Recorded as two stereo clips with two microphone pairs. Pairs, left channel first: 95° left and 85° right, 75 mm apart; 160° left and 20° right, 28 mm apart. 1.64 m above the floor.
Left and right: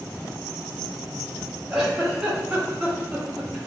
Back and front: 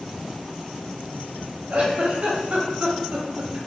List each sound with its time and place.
1.7 s a giggle: 5° right, 0.8 m